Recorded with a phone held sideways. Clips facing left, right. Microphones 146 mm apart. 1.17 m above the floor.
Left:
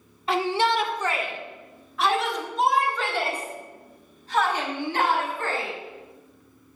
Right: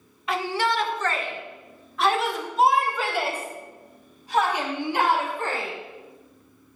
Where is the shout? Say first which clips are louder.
Left 2 dB; 30° left (ahead or behind), 1.6 m; by 5.7 s 15° right (ahead or behind), 6 m.